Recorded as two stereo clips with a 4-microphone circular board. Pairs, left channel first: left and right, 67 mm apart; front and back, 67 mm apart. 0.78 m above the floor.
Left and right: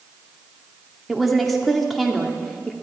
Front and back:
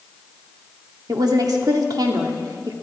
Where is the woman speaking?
Straight behind, 1.7 m.